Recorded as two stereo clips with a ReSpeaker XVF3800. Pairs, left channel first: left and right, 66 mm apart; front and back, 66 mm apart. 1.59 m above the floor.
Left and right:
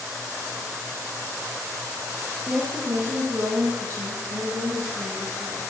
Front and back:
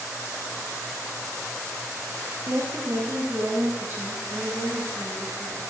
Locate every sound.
2.5 s a woman speaking: 150° right, 1.4 m; by 5.6 s 100° right, 3.5 m